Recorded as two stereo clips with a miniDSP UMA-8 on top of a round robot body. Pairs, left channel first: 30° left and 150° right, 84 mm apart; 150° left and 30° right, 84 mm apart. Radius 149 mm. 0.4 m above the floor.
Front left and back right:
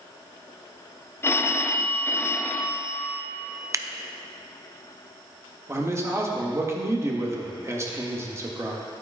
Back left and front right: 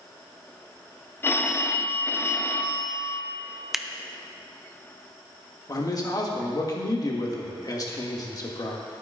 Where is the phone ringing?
90° left, 0.7 m.